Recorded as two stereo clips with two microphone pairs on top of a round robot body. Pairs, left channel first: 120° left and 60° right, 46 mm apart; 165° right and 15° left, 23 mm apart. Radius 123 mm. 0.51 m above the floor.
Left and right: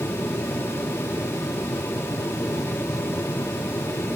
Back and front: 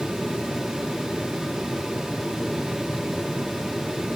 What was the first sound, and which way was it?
Only background noise.